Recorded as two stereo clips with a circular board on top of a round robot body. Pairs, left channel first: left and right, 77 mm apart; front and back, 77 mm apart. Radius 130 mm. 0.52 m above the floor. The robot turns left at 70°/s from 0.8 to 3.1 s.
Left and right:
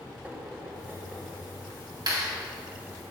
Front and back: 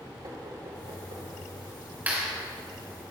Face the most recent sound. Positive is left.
turn(degrees=175)